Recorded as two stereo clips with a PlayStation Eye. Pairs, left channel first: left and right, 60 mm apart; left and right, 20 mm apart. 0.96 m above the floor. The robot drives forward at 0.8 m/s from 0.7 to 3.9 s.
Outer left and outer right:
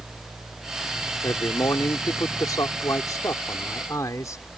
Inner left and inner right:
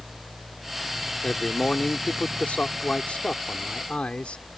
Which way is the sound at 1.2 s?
70° left (ahead or behind).